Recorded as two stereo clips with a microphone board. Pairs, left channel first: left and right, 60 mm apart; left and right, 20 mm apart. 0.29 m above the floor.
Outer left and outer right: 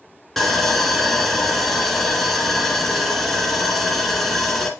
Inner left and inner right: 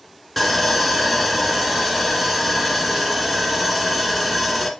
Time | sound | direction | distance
0.4 | sawing | 5° left (ahead or behind) | 1.4 m